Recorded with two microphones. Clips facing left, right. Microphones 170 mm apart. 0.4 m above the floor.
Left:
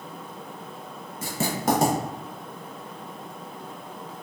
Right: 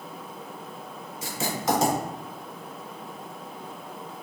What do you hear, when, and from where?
1.2 s writing: 55° left (ahead or behind), 0.8 m